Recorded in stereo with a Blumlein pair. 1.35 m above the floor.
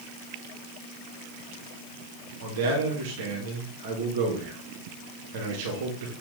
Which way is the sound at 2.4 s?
50° right.